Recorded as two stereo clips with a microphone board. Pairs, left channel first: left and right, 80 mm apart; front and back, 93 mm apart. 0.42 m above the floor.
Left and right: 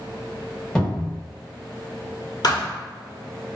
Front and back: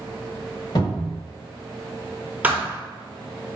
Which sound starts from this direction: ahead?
A cupboard door, at 0.8 s.